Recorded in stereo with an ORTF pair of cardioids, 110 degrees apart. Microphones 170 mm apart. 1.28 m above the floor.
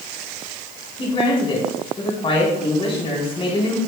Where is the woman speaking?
30° left, 4 m.